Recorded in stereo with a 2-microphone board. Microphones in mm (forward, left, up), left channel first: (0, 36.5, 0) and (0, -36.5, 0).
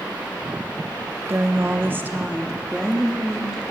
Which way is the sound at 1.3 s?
35° right (ahead or behind).